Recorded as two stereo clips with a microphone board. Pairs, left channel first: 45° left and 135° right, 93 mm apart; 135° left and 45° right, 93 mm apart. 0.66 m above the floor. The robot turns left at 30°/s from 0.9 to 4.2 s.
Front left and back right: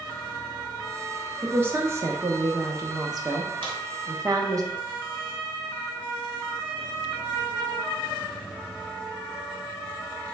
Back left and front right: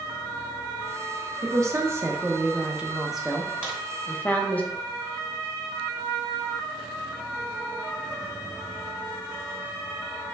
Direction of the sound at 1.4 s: 75° right.